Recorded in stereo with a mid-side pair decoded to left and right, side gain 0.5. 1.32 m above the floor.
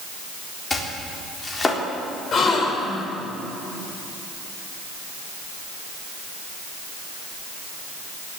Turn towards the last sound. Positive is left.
turn(degrees=45)